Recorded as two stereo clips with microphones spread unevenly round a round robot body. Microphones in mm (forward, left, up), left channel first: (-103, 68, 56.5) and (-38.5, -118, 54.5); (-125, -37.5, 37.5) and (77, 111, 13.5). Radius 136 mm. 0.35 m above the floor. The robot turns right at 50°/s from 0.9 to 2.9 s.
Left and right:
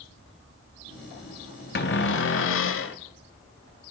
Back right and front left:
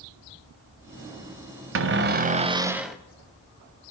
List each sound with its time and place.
1.8 s a cupboard door: 65° left, 0.8 m; by 3.0 s 125° left, 0.8 m